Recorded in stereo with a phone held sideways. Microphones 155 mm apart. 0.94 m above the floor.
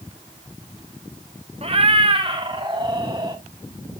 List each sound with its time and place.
1.6 s a cat meowing: 40° right (ahead or behind), 1.3 m; by 3.4 s 30° right (ahead or behind), 2.5 m